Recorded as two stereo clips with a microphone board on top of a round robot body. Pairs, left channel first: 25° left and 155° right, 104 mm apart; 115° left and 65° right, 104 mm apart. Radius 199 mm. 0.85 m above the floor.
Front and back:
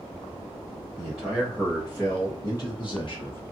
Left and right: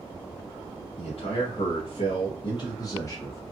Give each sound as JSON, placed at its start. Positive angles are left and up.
{"t": 1.0, "sound": "a man speaking", "azimuth_deg": 120, "distance_m": 1.8}